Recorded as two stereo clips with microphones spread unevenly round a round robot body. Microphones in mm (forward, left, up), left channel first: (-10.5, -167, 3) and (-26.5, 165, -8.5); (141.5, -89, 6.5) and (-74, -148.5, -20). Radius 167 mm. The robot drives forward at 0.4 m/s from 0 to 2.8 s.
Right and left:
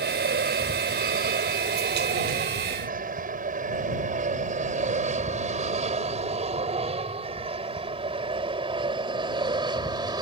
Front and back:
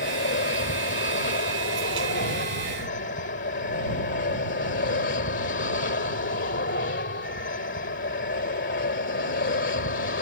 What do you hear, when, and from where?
0.0 s an aircraft: 40° left; by 10.2 s 20° left